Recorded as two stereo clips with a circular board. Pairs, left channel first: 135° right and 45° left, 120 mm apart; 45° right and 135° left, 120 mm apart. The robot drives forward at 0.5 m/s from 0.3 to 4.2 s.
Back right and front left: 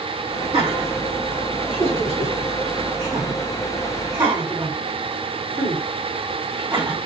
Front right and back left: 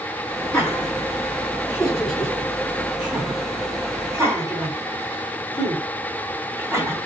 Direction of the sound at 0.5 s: 25° left.